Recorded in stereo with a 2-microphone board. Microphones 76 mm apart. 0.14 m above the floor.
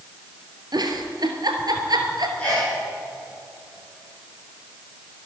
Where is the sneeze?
15° left (ahead or behind), 6.5 m.